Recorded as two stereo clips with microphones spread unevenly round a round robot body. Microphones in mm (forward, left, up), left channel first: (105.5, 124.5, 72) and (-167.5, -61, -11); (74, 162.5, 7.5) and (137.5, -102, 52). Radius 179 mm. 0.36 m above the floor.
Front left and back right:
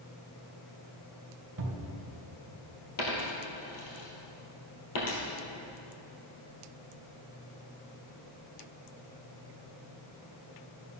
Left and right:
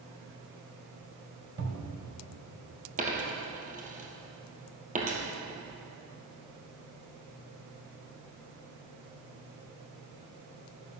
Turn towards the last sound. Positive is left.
turn(degrees=-15)